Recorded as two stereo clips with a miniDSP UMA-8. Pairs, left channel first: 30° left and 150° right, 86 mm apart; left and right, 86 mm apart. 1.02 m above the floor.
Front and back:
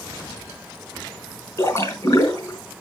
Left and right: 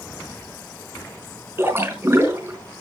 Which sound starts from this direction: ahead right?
A splash, at 1.6 s.